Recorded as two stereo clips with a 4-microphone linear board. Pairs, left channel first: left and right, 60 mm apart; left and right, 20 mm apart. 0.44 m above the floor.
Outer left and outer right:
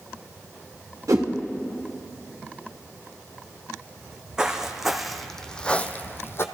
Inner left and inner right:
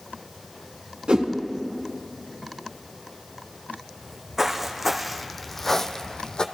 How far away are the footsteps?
About 1.3 m.